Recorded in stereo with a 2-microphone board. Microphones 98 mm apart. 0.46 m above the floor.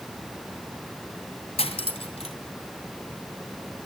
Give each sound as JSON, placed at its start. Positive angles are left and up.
{"t": 1.6, "sound": "cutlery clinking", "side_deg": 75, "distance_m": 2.5}